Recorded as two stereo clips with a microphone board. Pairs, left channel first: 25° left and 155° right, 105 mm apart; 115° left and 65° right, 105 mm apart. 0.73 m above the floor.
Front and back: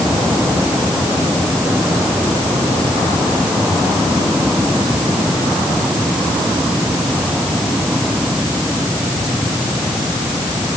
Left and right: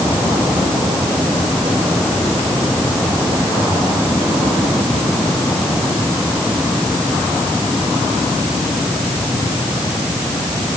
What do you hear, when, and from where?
Only background noise.